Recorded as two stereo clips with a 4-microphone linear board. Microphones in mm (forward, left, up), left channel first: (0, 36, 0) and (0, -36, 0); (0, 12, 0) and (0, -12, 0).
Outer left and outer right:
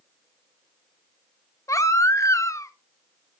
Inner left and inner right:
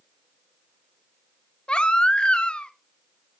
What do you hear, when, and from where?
1.7 s a baby crying: 45° left (ahead or behind), 0.7 m